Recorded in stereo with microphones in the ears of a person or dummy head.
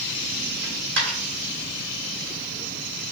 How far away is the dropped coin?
About 1.5 m.